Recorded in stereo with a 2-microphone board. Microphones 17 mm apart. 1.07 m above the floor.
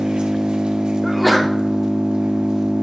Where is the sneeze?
5° left (ahead or behind), 0.7 m.